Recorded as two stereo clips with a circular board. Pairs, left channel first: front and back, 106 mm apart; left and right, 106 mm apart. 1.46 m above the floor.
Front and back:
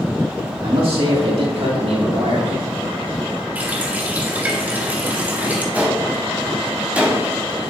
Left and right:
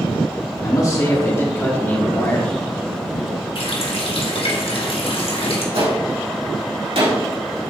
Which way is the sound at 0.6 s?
145° left.